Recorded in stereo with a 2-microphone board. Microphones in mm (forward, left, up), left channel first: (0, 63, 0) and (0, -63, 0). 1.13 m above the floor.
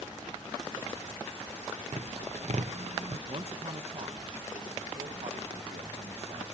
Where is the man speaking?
55° right (ahead or behind), 1.1 m.